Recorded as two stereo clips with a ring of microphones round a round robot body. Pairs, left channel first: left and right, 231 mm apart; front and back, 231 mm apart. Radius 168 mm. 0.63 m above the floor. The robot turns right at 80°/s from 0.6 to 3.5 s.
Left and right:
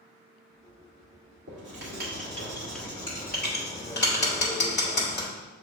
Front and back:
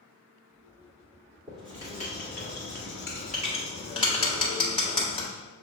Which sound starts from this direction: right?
Writing, at 1.5 s.